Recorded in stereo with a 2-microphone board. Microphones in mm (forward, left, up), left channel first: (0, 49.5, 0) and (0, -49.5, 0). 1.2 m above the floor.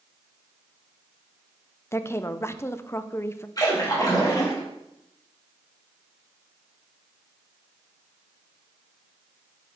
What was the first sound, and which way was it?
A woman speaking, 25° left (ahead or behind).